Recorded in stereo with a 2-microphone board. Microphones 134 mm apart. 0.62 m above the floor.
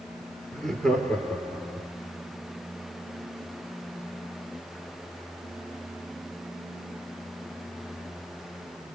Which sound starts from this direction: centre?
Laughter, at 0.5 s.